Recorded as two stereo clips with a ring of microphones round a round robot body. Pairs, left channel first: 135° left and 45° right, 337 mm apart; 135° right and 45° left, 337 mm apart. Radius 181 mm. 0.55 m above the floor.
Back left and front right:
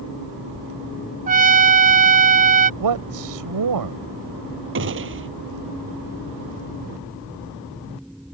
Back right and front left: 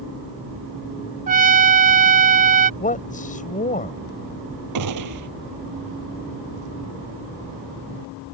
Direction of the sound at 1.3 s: Straight ahead.